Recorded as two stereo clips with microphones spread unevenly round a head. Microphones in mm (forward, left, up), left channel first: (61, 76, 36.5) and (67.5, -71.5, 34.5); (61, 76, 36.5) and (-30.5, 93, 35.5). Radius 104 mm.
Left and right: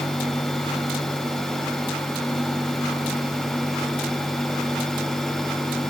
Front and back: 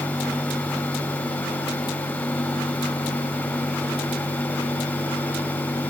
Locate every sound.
Only background noise.